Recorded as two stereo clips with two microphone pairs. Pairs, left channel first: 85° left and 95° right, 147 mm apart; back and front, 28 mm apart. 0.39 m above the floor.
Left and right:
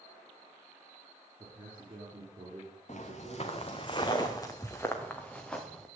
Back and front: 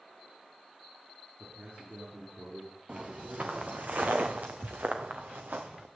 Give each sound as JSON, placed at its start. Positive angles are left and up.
{"t": 1.4, "sound": "a man speaking", "azimuth_deg": -40, "distance_m": 5.5}
{"t": 2.9, "sound": "footsteps", "azimuth_deg": 50, "distance_m": 2.5}